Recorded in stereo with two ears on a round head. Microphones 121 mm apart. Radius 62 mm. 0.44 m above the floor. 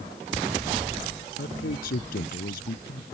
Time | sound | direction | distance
1.4 | a man speaking | 70° left (ahead or behind) | ?